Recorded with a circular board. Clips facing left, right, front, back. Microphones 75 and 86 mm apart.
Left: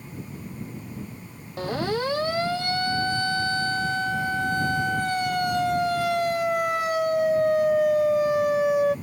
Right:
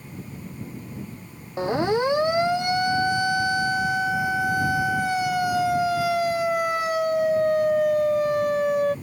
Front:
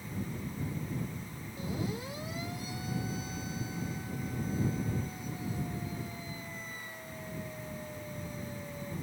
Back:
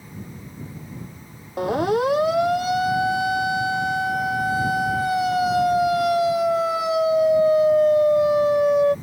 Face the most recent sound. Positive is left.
turn(degrees=175)